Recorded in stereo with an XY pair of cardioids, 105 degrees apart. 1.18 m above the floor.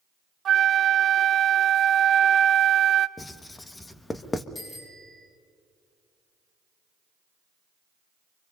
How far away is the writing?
About 1.4 m.